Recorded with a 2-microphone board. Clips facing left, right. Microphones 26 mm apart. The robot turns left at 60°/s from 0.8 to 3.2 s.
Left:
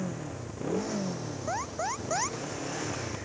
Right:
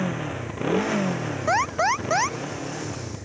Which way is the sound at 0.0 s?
60° right.